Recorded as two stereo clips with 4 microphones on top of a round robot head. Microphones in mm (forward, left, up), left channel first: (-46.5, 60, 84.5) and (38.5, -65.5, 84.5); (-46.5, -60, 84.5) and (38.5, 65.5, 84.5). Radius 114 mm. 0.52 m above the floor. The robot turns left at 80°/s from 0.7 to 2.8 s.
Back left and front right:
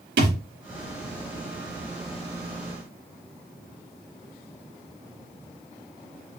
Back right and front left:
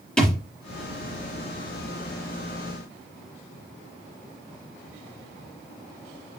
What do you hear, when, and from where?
0.2 s a thud: 40° right, 4.5 m